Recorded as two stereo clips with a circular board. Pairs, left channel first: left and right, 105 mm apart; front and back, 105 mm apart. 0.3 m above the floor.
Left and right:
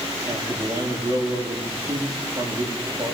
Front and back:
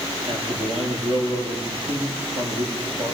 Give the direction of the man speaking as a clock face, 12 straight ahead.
5 o'clock.